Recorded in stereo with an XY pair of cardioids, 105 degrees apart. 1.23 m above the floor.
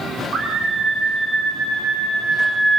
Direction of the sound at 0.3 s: 40° right.